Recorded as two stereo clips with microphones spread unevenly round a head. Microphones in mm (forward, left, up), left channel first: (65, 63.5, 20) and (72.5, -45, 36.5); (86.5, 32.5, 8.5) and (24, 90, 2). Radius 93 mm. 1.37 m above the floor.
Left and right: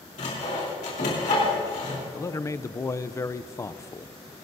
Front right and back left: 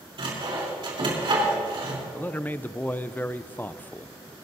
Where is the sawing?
120° left, 3.5 m.